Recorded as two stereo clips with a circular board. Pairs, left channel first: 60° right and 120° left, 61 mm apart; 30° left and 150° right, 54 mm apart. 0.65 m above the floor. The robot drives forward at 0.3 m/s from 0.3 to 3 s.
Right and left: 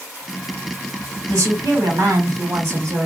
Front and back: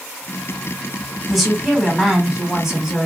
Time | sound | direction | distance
1.3 | a woman speaking | 120° left | 1.6 m